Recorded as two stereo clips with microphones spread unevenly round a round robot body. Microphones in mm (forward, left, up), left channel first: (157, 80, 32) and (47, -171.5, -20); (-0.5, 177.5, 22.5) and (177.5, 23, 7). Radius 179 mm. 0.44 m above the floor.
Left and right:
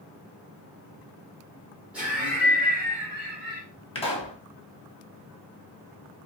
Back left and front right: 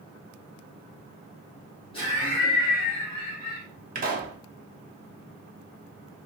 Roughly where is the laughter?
Behind.